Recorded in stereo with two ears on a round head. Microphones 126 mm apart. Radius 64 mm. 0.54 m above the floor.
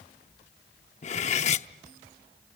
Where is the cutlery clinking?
45° left (ahead or behind), 0.7 m.